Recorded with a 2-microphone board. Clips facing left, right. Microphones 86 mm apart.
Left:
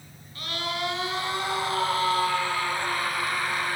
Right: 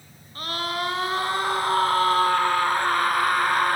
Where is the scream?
45° right (ahead or behind), 5.5 m; by 3.8 s 60° right (ahead or behind), 4 m.